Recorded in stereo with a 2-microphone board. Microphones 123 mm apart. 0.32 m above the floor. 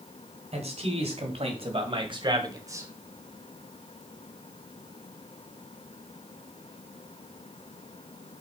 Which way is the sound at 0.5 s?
55° right (ahead or behind).